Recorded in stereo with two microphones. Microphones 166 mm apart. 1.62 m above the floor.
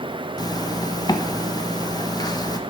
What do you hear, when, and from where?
0.4 s a zipper: 25° left (ahead or behind), 0.9 m